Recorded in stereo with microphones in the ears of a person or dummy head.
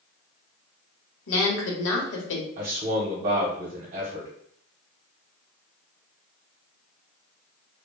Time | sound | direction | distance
1.3 | a woman speaking | 65° left (ahead or behind) | 0.9 m
2.6 | a man speaking | 35° right (ahead or behind) | 0.9 m